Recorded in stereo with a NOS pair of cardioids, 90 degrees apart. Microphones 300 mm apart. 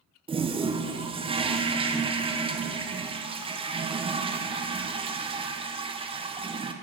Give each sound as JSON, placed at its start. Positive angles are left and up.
{"t": 0.3, "sound": "a toilet flushing", "azimuth_deg": -20, "distance_m": 0.6}